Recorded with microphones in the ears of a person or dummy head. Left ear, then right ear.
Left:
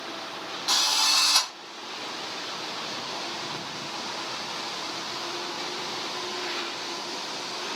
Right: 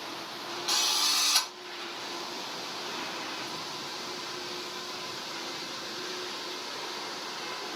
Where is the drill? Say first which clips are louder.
Left 4 dB; 5° left (ahead or behind), 2 m.